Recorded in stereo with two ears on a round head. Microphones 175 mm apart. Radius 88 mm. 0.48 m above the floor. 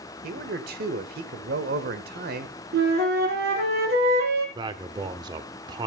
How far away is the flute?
About 3.5 m.